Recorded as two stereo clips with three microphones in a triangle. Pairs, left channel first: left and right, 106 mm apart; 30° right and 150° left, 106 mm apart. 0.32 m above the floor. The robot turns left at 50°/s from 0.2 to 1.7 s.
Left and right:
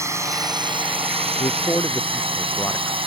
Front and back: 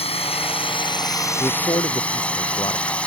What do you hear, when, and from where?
0.0 s a drone: 30° right; by 3.1 s 105° right
1.4 s a man speaking: 35° left; by 3.0 s 20° left